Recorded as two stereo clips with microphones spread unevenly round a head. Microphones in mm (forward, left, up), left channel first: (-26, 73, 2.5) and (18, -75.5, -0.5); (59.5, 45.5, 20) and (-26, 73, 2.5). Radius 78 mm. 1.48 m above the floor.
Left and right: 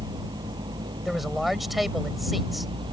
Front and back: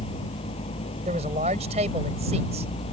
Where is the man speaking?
165° right.